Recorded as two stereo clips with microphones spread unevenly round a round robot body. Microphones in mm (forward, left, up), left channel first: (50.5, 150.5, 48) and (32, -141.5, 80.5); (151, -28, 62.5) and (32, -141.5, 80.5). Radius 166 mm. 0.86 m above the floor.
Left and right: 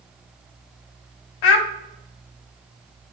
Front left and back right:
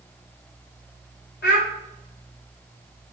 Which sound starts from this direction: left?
A child speaking, at 1.4 s.